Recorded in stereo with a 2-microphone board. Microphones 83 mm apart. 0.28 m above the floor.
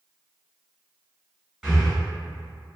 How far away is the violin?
No violin in this recording.